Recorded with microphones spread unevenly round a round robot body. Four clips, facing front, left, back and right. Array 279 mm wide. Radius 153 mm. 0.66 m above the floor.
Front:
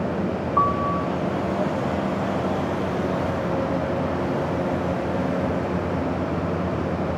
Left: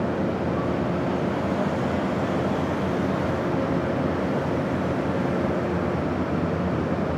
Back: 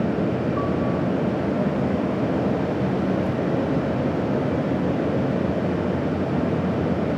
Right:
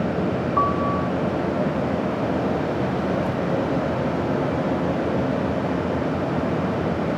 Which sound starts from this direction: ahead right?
A piano, at 0.6 s.